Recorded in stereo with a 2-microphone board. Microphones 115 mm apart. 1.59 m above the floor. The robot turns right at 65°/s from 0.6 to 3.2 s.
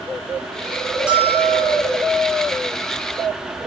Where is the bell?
170° right, 6.5 m; by 1.9 s 120° right, 6.5 m.